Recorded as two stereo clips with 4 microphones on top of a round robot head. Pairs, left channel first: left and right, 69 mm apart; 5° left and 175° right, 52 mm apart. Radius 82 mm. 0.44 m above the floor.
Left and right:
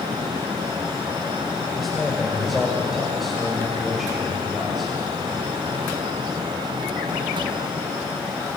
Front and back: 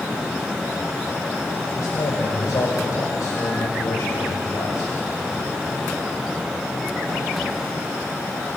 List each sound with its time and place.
1.8 s a man speaking: straight ahead, 2.5 m